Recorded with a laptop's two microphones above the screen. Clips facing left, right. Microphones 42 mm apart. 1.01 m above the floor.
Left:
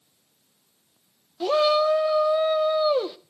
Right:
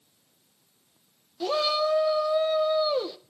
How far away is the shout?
About 0.5 m.